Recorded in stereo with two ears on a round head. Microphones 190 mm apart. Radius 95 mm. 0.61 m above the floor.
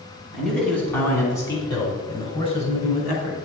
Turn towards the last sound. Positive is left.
turn(degrees=40)  # may be behind; listen again after turning